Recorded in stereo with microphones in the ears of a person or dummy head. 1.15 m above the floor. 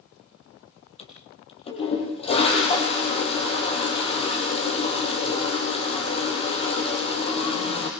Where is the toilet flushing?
30° left (ahead or behind), 7 m.